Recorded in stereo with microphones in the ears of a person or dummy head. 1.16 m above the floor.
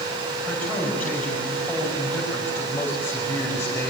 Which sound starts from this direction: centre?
A man speaking, at 0.5 s.